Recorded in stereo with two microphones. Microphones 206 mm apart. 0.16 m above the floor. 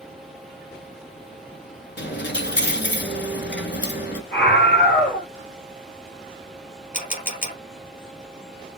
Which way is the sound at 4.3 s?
55° left (ahead or behind).